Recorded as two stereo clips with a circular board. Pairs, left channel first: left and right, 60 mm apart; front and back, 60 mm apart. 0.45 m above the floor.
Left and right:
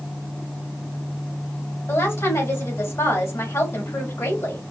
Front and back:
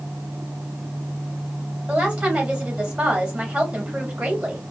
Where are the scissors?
No scissors in this recording.